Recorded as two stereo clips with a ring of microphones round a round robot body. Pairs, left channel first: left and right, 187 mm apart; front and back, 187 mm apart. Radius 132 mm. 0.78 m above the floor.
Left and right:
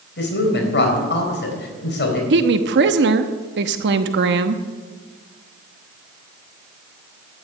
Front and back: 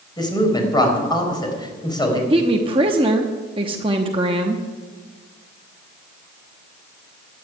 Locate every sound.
0.2 s a woman speaking: 70° left, 4.5 m
2.3 s a woman speaking: 115° right, 0.9 m